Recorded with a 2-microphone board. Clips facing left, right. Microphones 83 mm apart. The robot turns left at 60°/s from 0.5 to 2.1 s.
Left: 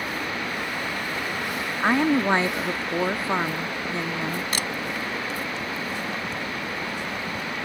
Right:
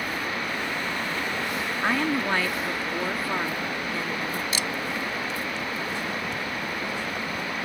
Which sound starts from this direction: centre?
A woman speaking, at 1.8 s.